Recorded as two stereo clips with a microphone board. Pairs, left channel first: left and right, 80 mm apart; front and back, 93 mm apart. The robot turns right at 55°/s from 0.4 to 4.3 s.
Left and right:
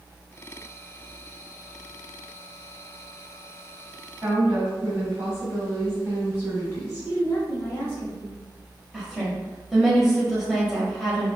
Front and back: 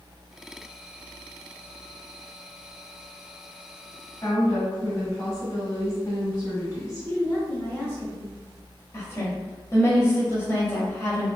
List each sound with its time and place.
4.2 s a woman speaking: 45° right, 1.9 m; by 7.1 s 35° right, 1.9 m
7.0 s a woman speaking: 60° left, 0.9 m
8.9 s a woman speaking: 5° right, 1.1 m